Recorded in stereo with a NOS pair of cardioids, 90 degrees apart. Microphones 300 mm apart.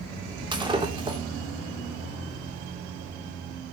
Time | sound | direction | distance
0.5 | breaking glass | 15° right | 3.5 m